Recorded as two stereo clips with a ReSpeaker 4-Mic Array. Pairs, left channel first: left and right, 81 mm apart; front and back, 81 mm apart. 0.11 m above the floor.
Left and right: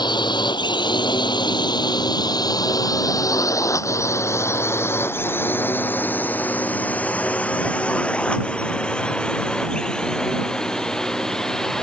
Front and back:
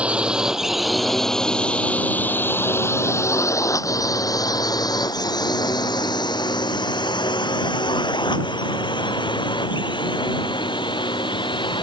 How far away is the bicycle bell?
No bicycle bell in this recording.